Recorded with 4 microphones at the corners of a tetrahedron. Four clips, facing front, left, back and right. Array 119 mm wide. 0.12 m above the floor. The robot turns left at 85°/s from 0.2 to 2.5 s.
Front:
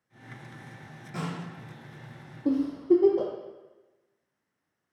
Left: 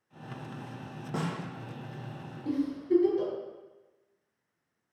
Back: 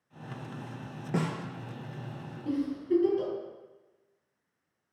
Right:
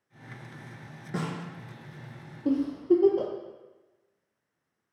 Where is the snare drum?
Straight behind, 0.8 m; by 1.4 s 160° left, 0.8 m.